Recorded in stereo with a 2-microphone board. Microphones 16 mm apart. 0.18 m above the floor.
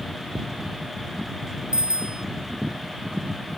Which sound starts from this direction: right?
A bicycle bell, at 1.7 s.